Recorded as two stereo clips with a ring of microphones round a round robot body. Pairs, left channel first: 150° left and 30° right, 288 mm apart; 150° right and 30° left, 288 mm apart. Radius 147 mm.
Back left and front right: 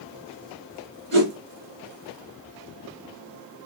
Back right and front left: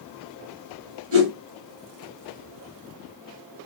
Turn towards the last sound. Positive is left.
turn(degrees=25)